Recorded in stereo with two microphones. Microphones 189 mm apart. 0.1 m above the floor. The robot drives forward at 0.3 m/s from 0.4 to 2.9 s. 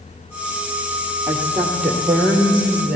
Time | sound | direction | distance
1.3 | a woman speaking | 5° right (ahead or behind) | 2.5 m